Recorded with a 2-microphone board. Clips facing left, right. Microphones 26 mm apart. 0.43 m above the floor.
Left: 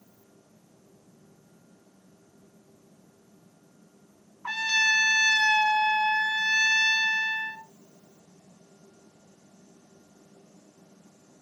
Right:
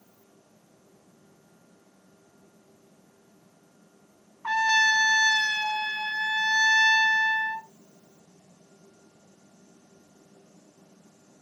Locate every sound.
4.4 s a trumpet: 45° right (ahead or behind), 2.5 m